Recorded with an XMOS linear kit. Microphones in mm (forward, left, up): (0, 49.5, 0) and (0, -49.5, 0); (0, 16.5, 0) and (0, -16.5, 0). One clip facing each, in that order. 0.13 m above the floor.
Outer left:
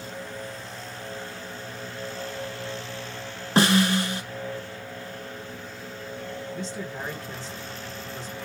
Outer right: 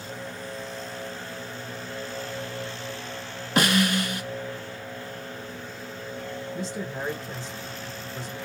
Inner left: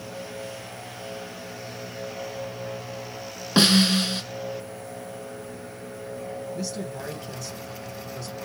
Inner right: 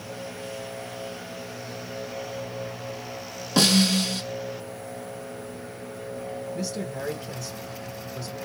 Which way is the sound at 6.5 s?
5° right (ahead or behind).